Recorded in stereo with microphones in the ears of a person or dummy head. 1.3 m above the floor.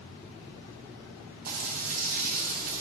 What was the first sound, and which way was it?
Frying, 50° right (ahead or behind).